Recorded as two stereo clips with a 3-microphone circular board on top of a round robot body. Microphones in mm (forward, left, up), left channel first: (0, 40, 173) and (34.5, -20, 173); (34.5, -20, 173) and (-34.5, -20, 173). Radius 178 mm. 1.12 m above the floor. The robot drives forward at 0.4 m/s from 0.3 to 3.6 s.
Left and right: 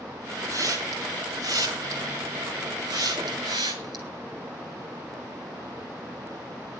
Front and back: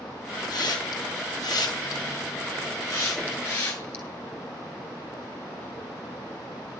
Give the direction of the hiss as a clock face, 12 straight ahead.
1 o'clock.